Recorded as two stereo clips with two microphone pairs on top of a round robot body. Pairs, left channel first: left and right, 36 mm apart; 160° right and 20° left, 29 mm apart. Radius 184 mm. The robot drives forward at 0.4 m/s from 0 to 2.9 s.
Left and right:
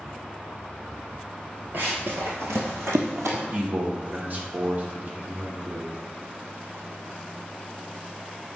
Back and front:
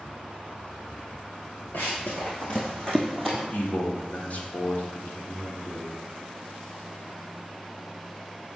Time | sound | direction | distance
1.7 | running footsteps | 135° right | 0.6 m
3.5 | a man speaking | 125° right | 2 m